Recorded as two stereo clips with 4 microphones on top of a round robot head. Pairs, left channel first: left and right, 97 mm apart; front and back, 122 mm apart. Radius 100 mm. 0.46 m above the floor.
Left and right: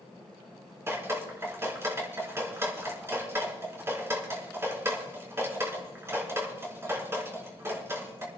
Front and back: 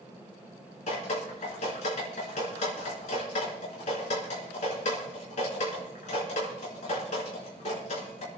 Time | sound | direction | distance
0.9 | dripping | 30° right | 4.5 m